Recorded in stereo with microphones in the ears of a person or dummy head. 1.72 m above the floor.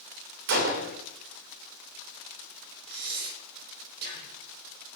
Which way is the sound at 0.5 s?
50° right (ahead or behind).